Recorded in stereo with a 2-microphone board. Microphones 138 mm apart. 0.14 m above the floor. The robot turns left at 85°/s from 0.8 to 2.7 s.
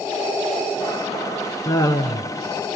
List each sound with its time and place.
1.6 s laughter: 20° left (ahead or behind), 1.3 m; by 2.3 s 30° left (ahead or behind), 1.3 m